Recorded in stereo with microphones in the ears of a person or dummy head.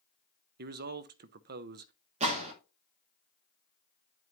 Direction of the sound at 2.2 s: 40° right (ahead or behind).